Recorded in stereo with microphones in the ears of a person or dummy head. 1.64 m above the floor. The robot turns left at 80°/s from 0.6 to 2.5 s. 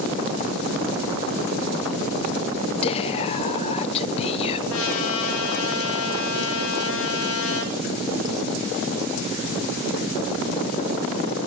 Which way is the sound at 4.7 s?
70° left (ahead or behind).